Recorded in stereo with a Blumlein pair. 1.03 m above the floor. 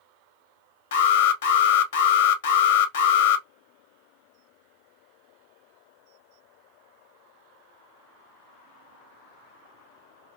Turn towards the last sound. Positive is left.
turn(degrees=55)